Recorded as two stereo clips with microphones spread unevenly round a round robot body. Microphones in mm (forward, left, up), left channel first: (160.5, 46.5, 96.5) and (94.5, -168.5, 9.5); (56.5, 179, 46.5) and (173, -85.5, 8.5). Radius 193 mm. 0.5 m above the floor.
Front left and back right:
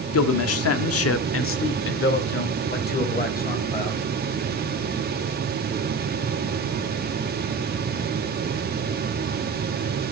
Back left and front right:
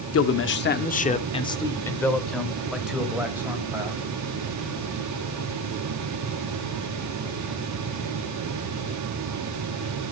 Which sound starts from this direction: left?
A man speaking, at 0.1 s.